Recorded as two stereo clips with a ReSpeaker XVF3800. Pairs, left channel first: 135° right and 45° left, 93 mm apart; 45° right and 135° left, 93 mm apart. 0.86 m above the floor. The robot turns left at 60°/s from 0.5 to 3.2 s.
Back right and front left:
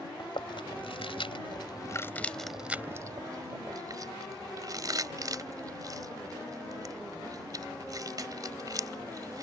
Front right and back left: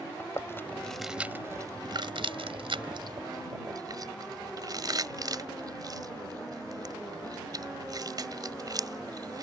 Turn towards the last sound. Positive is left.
turn(degrees=90)